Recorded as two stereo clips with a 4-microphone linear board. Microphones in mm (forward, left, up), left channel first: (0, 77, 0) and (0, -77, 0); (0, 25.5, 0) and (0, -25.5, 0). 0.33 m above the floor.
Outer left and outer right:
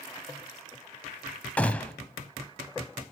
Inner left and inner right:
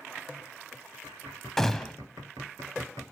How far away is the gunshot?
About 0.6 m.